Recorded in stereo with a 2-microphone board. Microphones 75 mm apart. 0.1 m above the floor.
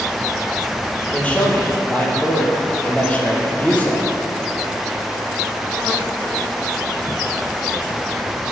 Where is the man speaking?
20° left (ahead or behind), 3.5 m.